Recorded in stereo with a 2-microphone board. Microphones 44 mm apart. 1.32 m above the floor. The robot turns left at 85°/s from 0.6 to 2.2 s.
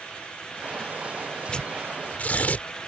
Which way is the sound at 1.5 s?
15° left (ahead or behind).